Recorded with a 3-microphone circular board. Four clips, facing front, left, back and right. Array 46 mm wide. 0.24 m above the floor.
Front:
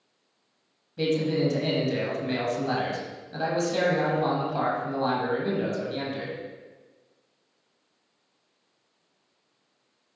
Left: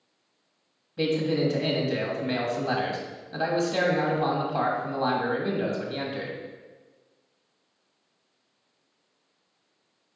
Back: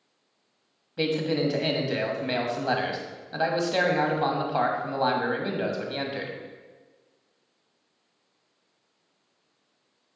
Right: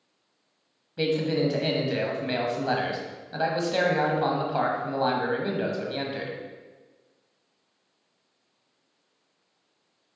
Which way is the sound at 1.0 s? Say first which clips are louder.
Even, front 1 dB; 155° right.